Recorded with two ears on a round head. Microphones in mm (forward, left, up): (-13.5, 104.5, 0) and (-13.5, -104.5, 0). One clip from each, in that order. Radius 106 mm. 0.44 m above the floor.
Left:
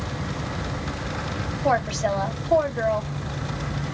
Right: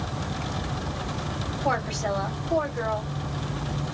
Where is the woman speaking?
10° left (ahead or behind), 1.7 m.